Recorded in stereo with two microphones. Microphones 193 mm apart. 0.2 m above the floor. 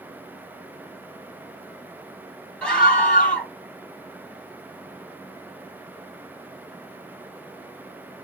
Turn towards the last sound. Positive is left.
turn(degrees=5)  # may be behind; listen again after turning